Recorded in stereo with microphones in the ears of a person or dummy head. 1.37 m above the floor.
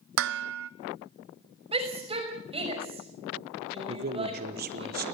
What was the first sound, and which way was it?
Dishes clattering, 65° right (ahead or behind).